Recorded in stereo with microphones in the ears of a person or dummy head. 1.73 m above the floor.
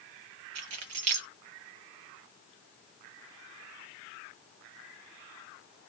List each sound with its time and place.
0.6 s keys jangling: 40° right (ahead or behind), 0.7 m